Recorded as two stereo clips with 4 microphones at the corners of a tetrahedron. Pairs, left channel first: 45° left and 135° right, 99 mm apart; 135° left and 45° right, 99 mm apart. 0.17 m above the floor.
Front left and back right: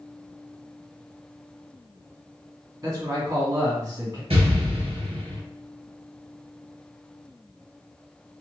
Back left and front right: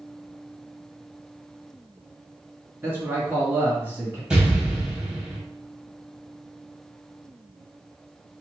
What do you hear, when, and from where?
2.8 s a man speaking: 105° right, 2.0 m
4.3 s an explosion: 130° right, 1.8 m